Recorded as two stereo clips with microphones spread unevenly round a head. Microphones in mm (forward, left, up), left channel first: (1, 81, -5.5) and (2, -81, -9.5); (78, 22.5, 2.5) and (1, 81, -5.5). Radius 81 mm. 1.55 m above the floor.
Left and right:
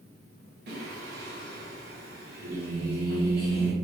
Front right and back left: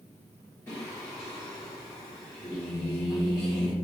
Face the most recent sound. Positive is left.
turn(degrees=-110)